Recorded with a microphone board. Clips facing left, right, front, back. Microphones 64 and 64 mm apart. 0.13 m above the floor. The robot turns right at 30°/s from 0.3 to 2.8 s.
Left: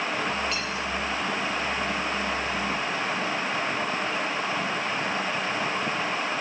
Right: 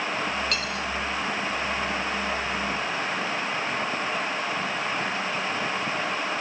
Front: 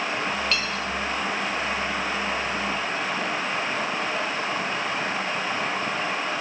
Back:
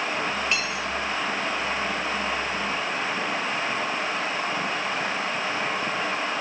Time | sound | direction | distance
0.5 | cutlery clinking | 110° right | 2 m